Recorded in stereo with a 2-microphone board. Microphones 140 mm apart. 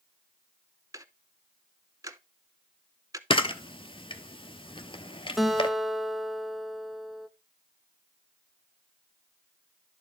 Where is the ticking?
25° right (ahead or behind), 0.6 m.